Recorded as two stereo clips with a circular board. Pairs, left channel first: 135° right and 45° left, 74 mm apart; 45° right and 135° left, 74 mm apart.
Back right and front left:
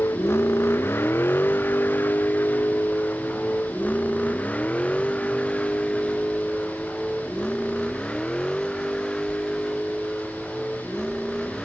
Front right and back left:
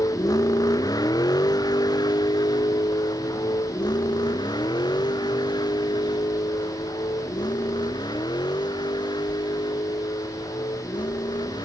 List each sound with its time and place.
0.0 s a vehicle: 80° right; by 11.7 s 50° right